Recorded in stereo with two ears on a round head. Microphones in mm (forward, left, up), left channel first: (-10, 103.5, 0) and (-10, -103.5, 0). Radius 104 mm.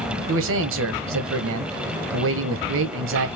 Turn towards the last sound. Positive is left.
turn(degrees=-60)  # may be behind; listen again after turning